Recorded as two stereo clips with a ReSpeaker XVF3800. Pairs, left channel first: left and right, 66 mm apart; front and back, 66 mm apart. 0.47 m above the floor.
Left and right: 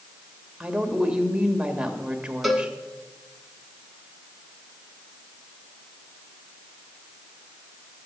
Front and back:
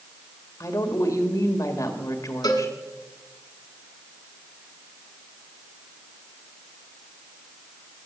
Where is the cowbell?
Straight ahead, 1.7 m.